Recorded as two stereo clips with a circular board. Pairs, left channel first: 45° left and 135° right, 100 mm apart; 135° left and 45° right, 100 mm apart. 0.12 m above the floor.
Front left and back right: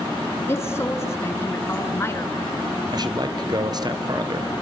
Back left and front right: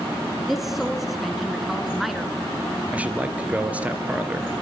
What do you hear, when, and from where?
0.5 s a woman speaking: 40° left, 1.3 m
2.9 s a man speaking: 115° right, 2.0 m